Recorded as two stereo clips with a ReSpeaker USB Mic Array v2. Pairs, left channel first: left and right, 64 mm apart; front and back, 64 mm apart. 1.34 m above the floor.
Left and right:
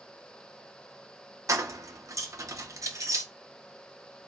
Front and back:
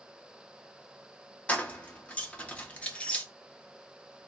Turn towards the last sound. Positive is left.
turn(degrees=-65)